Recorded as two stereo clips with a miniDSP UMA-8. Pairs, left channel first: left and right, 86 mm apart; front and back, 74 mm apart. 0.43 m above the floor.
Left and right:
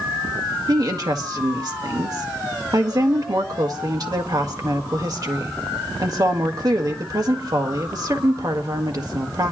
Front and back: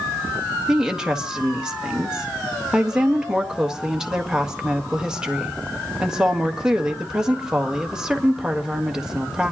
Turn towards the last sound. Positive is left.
turn(degrees=-100)